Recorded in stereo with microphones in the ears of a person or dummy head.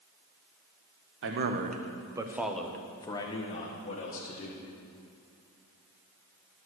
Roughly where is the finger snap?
I don't hear a finger snap.